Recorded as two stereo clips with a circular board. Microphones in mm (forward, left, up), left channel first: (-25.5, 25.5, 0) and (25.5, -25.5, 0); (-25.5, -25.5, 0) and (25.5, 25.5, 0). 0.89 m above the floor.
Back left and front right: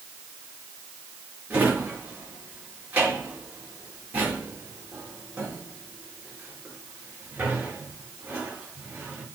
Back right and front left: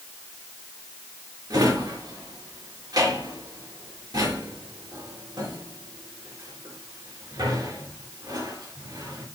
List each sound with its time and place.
1.5 s a drawer: 25° left, 4.5 m